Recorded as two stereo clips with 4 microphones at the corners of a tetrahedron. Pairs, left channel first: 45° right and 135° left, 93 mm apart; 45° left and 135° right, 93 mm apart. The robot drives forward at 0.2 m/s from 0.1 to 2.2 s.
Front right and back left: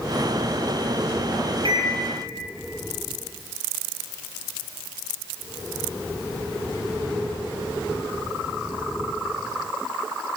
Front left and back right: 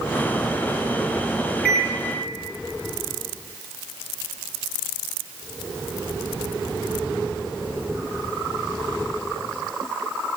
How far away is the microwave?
About 2 m.